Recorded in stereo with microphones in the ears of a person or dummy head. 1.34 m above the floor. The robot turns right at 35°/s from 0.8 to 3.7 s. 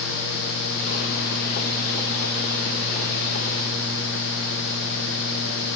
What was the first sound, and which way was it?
Only background noise.